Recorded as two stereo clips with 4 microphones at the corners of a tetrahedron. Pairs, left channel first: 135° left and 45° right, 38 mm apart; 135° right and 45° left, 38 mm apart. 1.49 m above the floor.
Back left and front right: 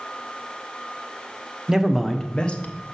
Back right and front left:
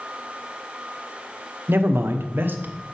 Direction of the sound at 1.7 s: 35° left.